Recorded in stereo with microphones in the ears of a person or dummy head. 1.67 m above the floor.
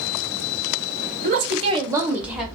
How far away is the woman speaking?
About 0.6 m.